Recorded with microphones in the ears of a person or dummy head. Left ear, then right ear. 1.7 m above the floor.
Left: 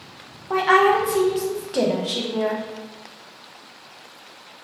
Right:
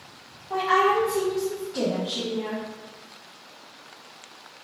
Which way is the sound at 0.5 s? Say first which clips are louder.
Left 4 dB; 45° left (ahead or behind).